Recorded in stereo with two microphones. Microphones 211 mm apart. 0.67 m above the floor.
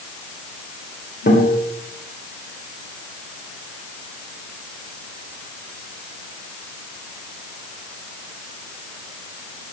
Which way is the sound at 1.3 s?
60° left (ahead or behind).